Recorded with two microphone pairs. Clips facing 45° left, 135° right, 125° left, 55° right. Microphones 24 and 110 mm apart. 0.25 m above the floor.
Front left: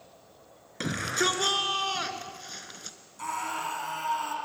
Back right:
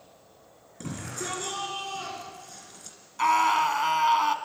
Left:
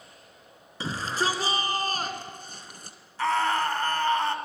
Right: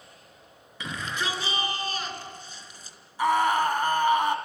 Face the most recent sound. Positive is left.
turn(degrees=-130)